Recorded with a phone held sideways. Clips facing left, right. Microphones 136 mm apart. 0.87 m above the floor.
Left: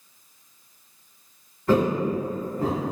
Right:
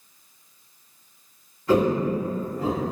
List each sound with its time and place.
1.7 s footsteps: 50° left (ahead or behind), 1.2 m; by 2.8 s 45° left (ahead or behind), 1.2 m